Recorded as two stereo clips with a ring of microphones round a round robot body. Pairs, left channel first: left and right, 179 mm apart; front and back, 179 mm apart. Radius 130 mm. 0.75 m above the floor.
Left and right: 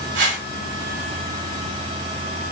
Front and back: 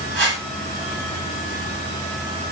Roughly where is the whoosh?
Right.